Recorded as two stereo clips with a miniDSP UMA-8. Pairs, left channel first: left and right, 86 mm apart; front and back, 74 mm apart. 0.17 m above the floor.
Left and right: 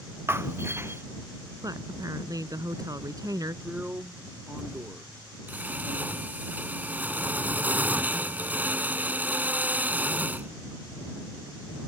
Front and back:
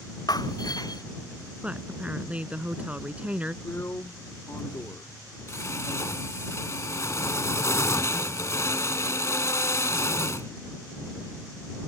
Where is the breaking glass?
25° right.